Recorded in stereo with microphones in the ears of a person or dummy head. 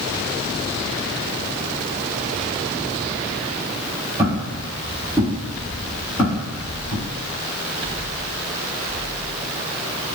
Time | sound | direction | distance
4.2 | footsteps | 25° right (ahead or behind) | 1.6 m